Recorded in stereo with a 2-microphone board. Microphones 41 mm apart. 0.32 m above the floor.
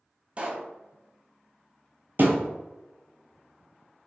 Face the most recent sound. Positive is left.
turn(degrees=-55)  # may be behind; listen again after turning